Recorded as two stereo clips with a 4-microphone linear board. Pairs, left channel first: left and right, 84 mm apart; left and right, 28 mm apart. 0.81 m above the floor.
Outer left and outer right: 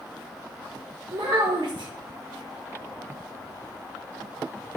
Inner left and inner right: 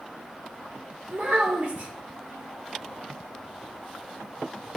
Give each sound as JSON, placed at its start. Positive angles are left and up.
{"t": 1.1, "sound": "a child speaking", "side_deg": -70, "distance_m": 1.3}